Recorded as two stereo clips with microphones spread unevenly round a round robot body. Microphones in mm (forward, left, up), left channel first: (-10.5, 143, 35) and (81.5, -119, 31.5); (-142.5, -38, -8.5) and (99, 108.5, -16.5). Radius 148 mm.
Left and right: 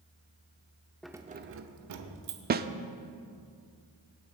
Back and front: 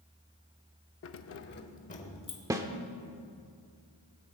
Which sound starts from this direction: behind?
Keys jangling, at 1.0 s.